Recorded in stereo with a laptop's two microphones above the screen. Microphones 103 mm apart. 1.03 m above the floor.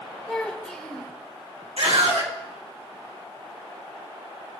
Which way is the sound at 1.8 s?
80° right.